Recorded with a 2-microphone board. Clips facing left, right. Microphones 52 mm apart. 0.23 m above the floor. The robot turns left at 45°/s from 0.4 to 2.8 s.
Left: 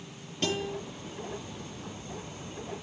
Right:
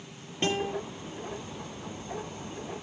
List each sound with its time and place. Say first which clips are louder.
0.4 s a guitar: right 2 dB; 25° right (ahead or behind), 6 m; by 0.7 s 35° right (ahead or behind), 6 m